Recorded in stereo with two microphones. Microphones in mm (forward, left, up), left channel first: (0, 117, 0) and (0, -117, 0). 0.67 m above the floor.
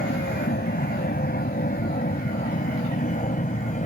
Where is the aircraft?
45° left (ahead or behind); by 3.9 s 35° left (ahead or behind).